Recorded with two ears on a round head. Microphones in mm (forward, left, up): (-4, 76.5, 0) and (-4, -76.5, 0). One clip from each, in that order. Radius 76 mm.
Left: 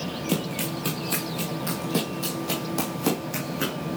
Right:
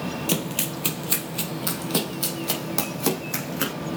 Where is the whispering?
No whispering in this recording.